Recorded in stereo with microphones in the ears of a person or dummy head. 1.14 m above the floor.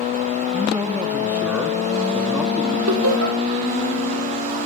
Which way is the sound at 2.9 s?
85° right.